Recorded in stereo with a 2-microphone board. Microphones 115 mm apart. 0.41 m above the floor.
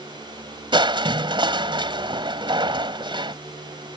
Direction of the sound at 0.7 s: 40° right (ahead or behind).